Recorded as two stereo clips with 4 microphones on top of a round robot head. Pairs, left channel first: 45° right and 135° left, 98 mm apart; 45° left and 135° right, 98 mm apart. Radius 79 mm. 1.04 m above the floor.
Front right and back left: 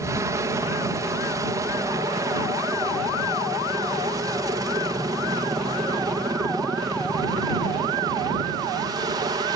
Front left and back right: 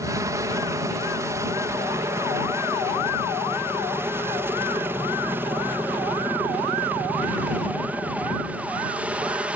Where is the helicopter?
Straight behind; by 9.6 s 150° left.